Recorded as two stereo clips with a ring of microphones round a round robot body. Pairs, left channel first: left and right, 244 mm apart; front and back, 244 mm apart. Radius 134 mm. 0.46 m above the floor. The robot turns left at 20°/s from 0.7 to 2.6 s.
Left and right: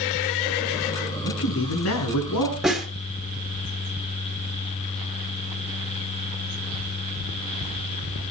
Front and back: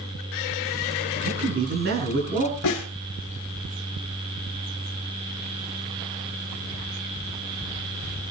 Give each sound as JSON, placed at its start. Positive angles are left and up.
{"t": 1.2, "sound": "a man speaking", "azimuth_deg": 140, "distance_m": 7.0}
{"t": 2.6, "sound": "a snare drum", "azimuth_deg": 0, "distance_m": 3.5}